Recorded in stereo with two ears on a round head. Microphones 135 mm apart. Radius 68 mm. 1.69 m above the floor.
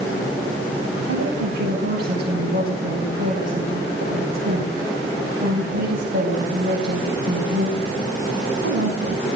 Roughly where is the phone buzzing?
No phone buzzing in this recording.